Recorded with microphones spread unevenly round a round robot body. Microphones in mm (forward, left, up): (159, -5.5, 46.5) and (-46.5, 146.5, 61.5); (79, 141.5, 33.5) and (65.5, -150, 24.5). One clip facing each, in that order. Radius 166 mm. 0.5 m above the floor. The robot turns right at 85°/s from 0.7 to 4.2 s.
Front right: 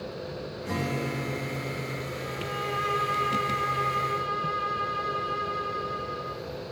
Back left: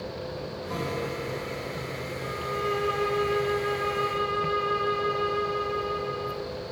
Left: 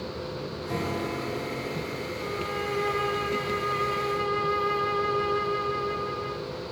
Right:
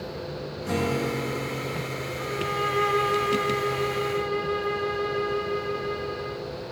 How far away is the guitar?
About 8 m.